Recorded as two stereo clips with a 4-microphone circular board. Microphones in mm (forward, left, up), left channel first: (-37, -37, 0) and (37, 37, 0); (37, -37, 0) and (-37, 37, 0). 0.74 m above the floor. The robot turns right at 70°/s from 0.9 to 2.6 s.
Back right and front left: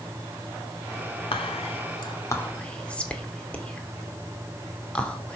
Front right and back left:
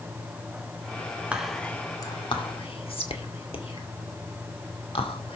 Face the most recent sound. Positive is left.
turn(degrees=-55)